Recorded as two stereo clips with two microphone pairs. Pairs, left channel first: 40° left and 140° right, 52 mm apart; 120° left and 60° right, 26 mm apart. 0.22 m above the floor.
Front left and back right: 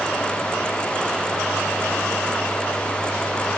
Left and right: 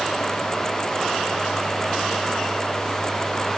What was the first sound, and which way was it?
Only background noise.